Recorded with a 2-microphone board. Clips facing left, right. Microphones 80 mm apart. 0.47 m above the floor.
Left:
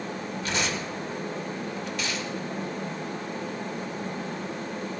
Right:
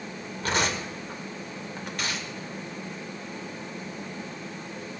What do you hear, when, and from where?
0.4 s tearing paper: 50° right (ahead or behind), 1.9 m